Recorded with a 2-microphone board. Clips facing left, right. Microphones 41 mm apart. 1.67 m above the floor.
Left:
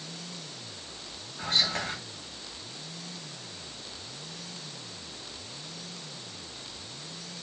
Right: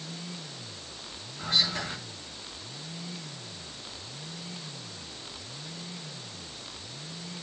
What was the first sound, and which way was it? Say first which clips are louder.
Whispering: even; 50° left (ahead or behind).